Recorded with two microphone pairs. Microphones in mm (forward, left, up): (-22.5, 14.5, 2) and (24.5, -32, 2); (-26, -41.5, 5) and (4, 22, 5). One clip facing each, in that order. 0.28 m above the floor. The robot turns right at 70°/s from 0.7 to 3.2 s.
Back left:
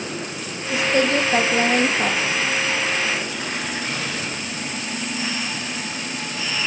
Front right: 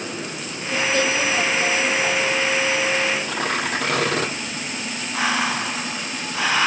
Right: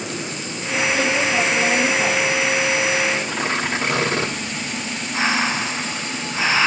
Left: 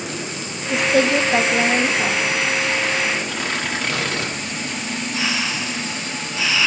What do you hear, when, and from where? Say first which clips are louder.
0.7 s a woman speaking: back left 2 dB, left 3 dB; 60° left, 4 m; by 2.2 s 165° left, 4 m
3.2 s tearing paper: front right 4 dB, right 2 dB; 50° right, 6.5 m
5.1 s breathing: front right 5 dB, right 6 dB; 60° right, 0.9 m